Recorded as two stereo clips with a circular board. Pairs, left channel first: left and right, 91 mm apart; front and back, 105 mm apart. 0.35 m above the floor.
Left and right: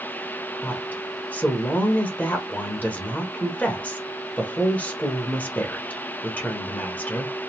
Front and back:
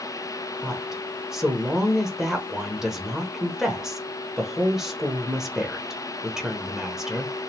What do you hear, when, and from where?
0.6 s a woman speaking: 105° left, 1.1 m